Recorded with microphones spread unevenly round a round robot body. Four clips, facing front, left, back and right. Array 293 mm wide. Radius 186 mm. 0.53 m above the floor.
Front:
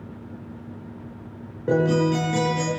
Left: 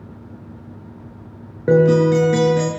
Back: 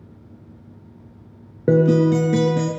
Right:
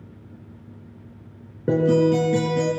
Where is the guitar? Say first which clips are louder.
Left 5 dB, back 5 dB; 175° right, 5 m.